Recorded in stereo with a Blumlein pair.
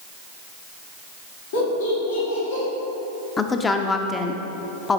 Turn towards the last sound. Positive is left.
turn(degrees=15)